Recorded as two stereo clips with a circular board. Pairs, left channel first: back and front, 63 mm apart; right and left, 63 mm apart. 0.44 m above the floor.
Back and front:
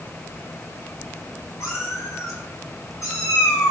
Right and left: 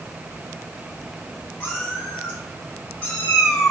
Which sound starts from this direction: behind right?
A cat meowing, at 1.6 s.